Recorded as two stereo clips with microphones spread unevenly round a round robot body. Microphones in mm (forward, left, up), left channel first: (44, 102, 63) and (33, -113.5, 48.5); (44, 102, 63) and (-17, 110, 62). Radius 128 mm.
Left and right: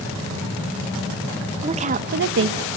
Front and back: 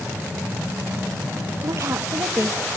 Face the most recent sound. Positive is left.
turn(degrees=-115)